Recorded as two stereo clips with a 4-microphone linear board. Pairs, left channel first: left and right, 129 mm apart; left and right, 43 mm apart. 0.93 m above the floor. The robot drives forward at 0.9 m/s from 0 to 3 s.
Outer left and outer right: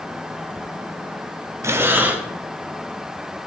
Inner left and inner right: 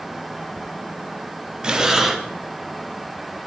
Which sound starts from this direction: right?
Breathing, at 1.6 s.